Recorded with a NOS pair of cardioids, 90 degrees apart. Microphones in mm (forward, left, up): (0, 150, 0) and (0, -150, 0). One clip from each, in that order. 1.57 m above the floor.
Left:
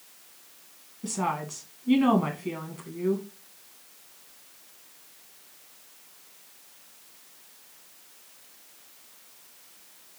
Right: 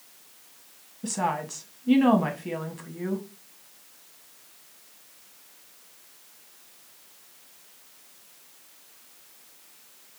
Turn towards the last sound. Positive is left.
turn(degrees=-15)